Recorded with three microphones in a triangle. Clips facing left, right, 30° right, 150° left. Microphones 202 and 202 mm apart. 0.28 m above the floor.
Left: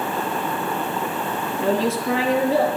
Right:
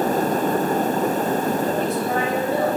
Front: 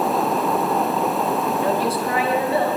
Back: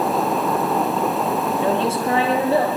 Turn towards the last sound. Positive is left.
turn(degrees=90)